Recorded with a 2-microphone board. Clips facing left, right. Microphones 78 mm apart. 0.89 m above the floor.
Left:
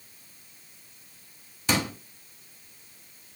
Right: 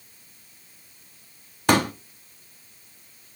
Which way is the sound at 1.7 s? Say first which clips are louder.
Right 7 dB; 55° right (ahead or behind).